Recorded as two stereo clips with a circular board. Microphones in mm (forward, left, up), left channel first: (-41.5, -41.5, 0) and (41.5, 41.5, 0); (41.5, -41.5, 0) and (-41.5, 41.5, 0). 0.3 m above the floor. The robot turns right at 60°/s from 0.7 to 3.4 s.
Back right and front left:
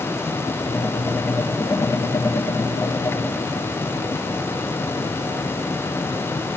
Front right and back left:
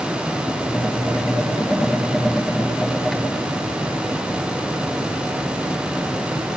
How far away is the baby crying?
I don't hear a baby crying.